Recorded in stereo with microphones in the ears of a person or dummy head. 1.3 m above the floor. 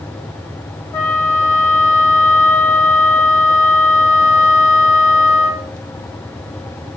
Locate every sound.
0.9 s a flute: 20° left (ahead or behind), 1.2 m